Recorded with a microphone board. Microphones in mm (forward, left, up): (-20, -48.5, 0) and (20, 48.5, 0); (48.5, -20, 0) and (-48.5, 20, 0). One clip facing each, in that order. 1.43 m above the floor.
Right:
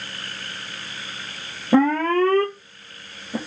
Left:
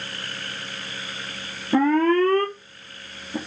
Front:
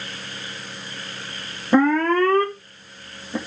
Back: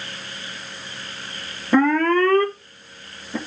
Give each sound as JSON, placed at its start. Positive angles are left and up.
{"t": 1.7, "sound": "an alarm", "azimuth_deg": -100, "distance_m": 2.0}